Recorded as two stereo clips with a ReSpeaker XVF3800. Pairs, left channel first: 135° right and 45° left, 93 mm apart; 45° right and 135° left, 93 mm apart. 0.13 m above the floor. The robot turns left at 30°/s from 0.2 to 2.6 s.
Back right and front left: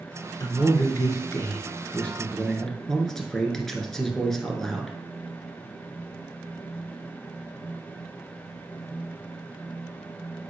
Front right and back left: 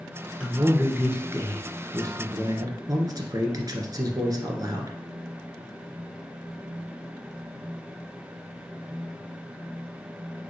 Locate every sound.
0.4 s a man speaking: 150° right, 1.4 m; by 5.0 s 145° left, 1.4 m